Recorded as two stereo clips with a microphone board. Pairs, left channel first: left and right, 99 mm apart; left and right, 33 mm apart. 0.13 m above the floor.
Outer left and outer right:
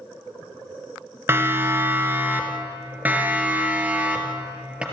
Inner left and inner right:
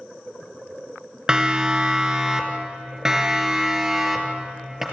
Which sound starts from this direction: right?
A siren, at 1.3 s.